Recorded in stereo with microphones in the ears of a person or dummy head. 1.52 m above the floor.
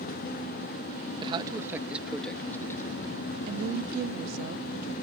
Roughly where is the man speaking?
Right.